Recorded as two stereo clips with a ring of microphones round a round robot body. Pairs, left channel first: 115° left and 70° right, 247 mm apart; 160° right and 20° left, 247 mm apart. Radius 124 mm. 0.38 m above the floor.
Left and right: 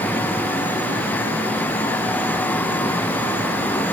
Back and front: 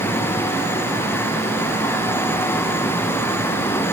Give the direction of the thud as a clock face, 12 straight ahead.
No thud in this recording.